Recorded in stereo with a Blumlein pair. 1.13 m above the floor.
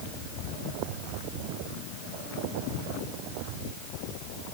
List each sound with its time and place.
Only background noise.